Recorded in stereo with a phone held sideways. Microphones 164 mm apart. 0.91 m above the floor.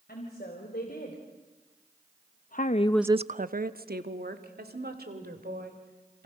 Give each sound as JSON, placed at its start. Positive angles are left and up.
{"t": 0.1, "sound": "a woman speaking", "side_deg": 75, "distance_m": 4.0}